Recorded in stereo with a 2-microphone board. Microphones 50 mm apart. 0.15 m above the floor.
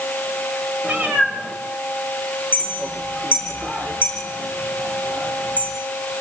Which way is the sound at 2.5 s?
30° right (ahead or behind).